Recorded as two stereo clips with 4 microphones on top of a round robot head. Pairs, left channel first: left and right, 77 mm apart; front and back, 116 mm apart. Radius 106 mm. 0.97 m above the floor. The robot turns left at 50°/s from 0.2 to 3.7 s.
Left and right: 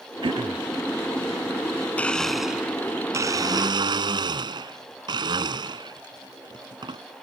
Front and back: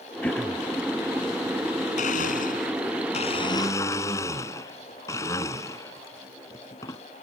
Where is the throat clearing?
75° right; by 0.7 s 100° right.